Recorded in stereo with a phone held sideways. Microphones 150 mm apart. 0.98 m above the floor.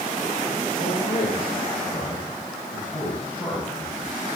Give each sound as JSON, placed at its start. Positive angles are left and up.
{"t": 0.8, "sound": "a man speaking", "side_deg": 55, "distance_m": 3.0}